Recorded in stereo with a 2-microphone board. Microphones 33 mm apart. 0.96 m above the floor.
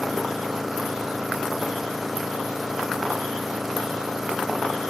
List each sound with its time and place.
0.0 s an engine running: 5° right (ahead or behind)